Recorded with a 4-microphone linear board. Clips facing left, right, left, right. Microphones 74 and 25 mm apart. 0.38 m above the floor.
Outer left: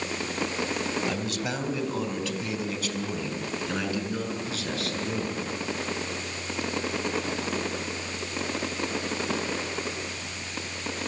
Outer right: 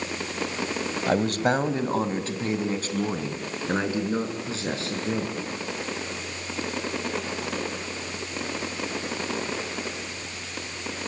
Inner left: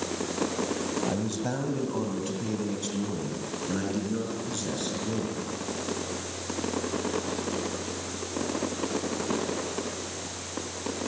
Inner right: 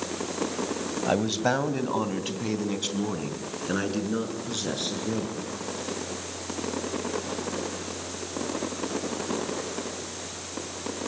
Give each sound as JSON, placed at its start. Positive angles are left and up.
{"t": 1.1, "sound": "a man speaking", "side_deg": -45, "distance_m": 2.0}